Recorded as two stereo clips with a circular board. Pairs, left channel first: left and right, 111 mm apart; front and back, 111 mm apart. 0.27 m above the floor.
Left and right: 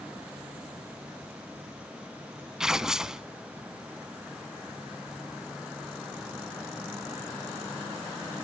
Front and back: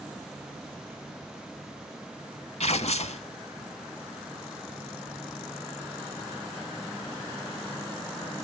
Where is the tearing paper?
5° right, 0.6 m.